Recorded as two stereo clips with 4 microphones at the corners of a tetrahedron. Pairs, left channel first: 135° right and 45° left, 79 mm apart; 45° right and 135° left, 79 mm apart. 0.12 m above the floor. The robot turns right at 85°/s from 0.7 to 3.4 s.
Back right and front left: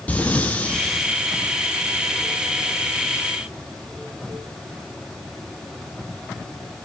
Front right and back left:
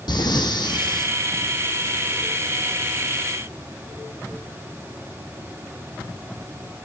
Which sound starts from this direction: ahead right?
Breathing, at 0.1 s.